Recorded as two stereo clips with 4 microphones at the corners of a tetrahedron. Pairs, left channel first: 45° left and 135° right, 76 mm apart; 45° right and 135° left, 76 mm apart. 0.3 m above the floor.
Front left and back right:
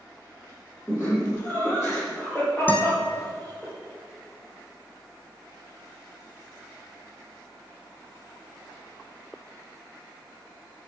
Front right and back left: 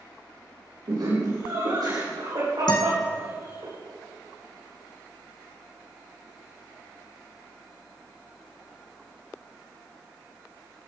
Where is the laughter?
120° left, 7.5 m; by 3.7 s 125° left, 11 m.